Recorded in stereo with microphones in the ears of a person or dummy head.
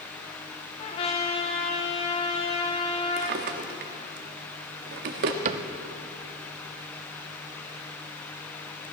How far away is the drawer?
About 1.5 m.